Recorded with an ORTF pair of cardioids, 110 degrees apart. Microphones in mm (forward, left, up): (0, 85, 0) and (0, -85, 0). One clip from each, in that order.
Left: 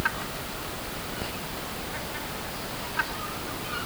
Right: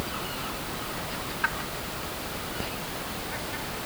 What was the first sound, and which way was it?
Only background noise.